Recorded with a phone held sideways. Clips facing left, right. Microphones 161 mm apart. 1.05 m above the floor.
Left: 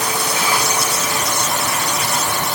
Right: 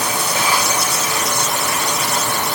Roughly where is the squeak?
No squeak in this recording.